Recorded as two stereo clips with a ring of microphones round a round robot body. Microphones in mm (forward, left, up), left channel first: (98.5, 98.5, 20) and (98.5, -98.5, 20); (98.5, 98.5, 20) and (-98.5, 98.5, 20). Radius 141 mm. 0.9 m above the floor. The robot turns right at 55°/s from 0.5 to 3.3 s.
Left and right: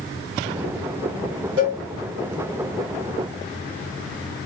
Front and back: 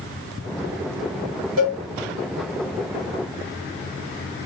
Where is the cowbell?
140° right, 1.0 m; by 1.8 s 130° right, 1.0 m.